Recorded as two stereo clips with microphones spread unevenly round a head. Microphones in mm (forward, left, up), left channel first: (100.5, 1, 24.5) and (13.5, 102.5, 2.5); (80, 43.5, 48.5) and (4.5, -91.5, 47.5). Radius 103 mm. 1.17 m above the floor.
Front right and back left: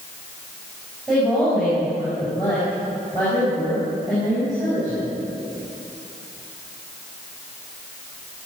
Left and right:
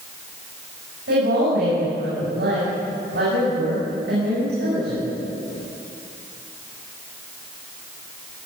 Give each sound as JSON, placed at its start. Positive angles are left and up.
{"t": 1.1, "sound": "a woman speaking", "azimuth_deg": -140, "distance_m": 6.0}